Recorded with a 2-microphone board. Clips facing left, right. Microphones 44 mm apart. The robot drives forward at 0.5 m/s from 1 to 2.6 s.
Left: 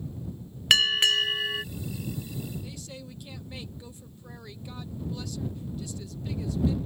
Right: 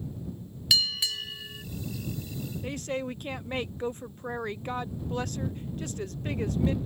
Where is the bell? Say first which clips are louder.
Left 7 dB; 55° left (ahead or behind); by 1.6 s 70° left (ahead or behind).